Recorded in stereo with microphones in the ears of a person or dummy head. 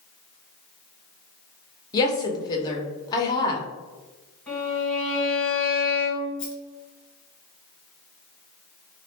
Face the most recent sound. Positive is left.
turn(degrees=65)  # may be behind; listen again after turning